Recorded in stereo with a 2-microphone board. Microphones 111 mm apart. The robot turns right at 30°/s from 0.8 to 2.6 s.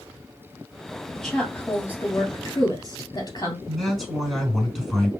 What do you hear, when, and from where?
1.1 s a woman speaking: centre (ahead or behind), 2.5 m; by 3.6 s 35° left (ahead or behind), 2.5 m
3.7 s a man speaking: 5° left (ahead or behind), 4 m